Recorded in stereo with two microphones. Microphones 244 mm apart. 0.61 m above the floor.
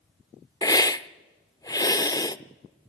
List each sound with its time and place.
0.6 s a hiss: 15° left (ahead or behind), 0.5 m